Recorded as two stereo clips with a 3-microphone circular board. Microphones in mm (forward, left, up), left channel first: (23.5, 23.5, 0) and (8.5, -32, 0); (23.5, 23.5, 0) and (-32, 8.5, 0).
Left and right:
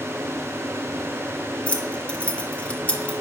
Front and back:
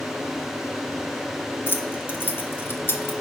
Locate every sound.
1.7 s keys jangling: 20° left, 0.7 m